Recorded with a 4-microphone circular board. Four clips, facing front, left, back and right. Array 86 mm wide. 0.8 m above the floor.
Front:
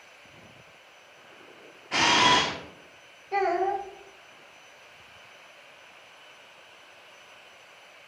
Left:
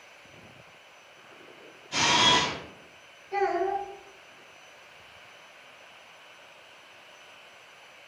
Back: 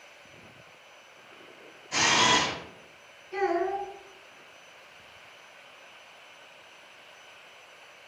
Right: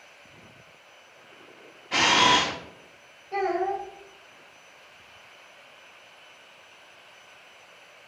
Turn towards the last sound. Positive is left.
turn(degrees=-5)